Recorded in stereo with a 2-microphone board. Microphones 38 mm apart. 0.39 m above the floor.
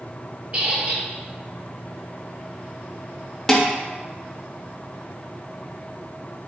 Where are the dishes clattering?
10° left (ahead or behind), 0.5 m.